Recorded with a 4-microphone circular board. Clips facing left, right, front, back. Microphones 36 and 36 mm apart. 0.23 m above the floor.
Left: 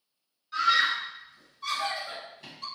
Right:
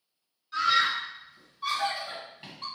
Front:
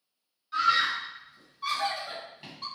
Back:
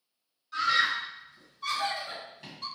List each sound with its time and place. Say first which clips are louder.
0.5 s a scream: left 1 dB, front 1 dB; 10° left, 1.2 m; by 2.6 s 60° right, 1.7 m